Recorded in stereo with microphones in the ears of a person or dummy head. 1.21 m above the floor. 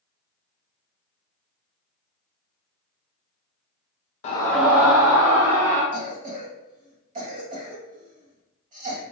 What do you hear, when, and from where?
4.2 s a scream: 35° left (ahead or behind), 0.6 m; by 5.8 s 35° right (ahead or behind), 2.5 m
5.9 s a cough: 35° right (ahead or behind), 0.9 m